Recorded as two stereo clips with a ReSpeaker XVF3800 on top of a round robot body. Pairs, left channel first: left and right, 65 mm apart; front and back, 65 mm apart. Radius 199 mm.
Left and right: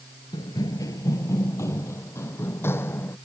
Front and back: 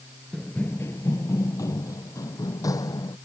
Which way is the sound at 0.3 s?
85° left.